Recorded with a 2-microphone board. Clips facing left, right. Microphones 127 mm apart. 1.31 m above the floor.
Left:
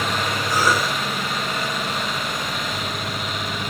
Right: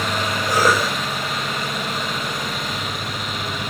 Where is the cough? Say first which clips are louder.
Right 3 dB; 60° right (ahead or behind), 6 m.